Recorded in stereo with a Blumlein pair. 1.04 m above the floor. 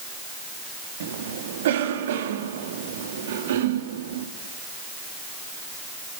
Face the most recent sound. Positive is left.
turn(degrees=-60)